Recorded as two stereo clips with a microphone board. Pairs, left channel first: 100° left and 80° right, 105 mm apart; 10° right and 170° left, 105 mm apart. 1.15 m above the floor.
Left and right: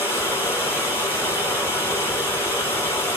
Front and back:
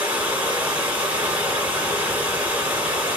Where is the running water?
125° left, 1.1 m.